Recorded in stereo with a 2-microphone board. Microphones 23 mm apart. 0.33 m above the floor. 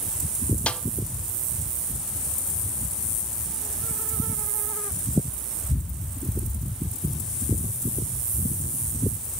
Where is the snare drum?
70° left (ahead or behind), 0.6 m.